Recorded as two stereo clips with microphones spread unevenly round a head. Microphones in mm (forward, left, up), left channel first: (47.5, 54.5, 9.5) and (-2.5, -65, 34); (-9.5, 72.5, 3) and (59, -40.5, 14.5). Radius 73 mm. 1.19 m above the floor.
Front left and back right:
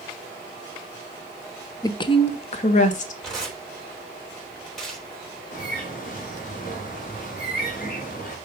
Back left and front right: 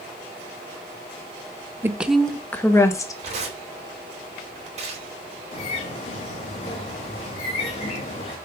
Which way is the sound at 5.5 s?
85° left.